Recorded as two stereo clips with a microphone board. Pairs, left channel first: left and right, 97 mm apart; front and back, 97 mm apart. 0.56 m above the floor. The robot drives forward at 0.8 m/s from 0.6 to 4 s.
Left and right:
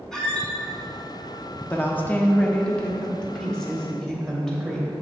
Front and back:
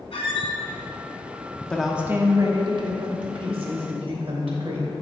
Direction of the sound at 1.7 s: 60° left.